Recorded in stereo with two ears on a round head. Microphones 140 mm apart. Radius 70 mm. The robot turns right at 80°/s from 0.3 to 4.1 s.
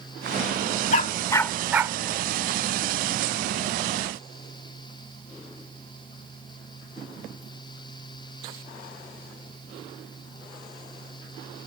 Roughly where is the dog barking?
Left.